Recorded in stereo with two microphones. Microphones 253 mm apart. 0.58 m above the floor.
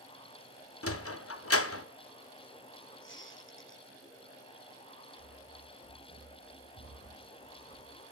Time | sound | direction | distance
0.8 | a sliding door | 65° left (ahead or behind) | 0.5 m
3.0 | a squeak | 50° left (ahead or behind) | 3 m
5.2 | running footsteps | 40° right (ahead or behind) | 4.5 m